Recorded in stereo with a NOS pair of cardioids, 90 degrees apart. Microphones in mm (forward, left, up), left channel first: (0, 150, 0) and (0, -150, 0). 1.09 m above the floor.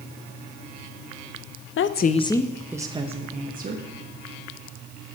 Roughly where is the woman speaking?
Ahead left.